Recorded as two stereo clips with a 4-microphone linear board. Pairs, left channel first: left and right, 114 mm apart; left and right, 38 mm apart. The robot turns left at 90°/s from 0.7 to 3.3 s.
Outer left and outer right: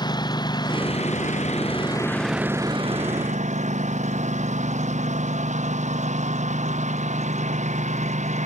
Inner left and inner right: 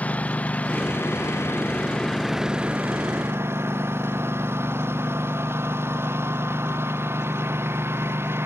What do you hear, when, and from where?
0.0 s a lawn mower: 145° left; by 8.5 s 90° right